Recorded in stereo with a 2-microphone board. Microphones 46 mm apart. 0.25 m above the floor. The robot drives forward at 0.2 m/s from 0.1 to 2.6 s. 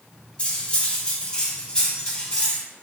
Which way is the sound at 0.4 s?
25° left (ahead or behind).